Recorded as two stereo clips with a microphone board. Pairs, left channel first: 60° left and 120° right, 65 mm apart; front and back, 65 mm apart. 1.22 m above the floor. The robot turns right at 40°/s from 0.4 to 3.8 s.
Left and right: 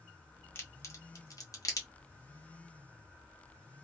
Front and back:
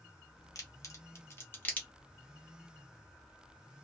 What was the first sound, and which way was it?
A crack, 15° left.